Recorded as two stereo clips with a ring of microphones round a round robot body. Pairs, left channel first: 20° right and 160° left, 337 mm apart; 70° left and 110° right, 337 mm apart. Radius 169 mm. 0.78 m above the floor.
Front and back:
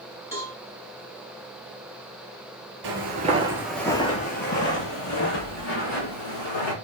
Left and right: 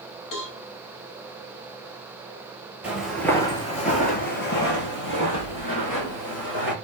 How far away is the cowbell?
About 1.9 m.